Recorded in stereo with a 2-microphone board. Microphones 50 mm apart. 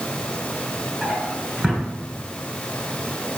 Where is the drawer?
20° right (ahead or behind), 1.8 m.